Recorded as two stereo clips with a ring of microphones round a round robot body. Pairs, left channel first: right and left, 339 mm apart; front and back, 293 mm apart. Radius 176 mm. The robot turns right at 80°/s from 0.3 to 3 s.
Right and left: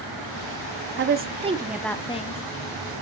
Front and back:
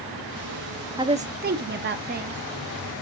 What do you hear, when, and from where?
1.0 s a woman speaking: 115° left, 0.8 m; by 2.4 s 130° right, 0.8 m